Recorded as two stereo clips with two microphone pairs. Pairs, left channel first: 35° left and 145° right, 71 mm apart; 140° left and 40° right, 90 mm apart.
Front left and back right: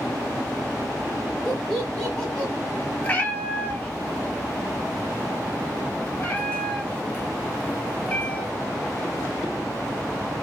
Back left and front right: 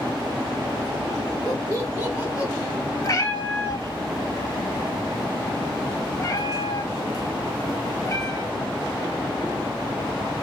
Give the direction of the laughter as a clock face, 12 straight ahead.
2 o'clock.